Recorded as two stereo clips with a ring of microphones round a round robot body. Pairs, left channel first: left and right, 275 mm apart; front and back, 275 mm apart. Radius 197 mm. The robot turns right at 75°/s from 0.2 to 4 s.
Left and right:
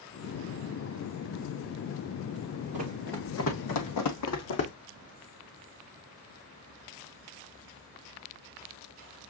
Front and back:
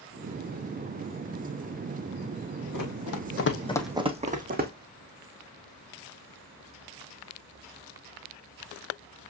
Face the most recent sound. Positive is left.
turn(degrees=125)